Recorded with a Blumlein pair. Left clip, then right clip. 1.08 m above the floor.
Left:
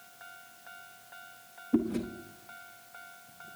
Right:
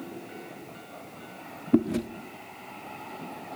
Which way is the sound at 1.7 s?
65° right.